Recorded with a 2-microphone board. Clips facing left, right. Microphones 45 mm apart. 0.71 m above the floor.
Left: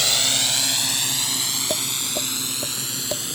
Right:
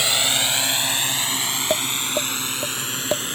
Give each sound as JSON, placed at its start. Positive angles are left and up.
{"t": 0.0, "sound": "a drone", "side_deg": -20}
{"t": 1.7, "sound": "tapping", "side_deg": -25}